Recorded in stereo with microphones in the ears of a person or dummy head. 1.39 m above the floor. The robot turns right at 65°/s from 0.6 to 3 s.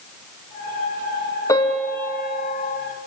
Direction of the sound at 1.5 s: 165° left.